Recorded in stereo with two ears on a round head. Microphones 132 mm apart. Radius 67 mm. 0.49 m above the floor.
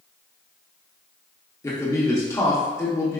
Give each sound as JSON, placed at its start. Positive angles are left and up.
{"t": 1.6, "sound": "a man speaking", "side_deg": 20, "distance_m": 0.9}